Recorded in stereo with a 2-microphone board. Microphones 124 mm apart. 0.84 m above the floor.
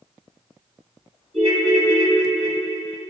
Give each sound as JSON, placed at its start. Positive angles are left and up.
{"t": 1.3, "sound": "a ringtone", "side_deg": -50, "distance_m": 4.0}